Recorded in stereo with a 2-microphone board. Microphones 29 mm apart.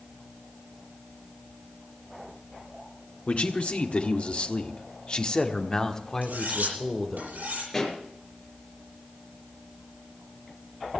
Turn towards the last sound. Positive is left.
turn(degrees=15)  # may be behind; listen again after turning